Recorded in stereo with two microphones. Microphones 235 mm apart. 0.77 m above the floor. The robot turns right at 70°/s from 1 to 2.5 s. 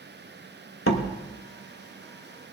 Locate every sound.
0.9 s a door slam: 65° left (ahead or behind), 1.2 m; by 1.1 s 60° left (ahead or behind), 1.2 m